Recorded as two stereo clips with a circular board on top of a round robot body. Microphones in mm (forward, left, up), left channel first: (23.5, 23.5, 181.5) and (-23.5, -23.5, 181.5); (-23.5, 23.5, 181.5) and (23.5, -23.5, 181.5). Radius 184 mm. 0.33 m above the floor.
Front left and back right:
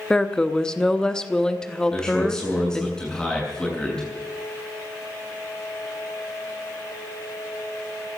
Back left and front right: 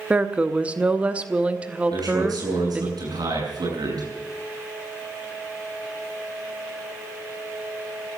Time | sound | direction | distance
0.1 | a woman speaking | 15° right | 1.5 m
1.9 | a man speaking | 35° right | 7.5 m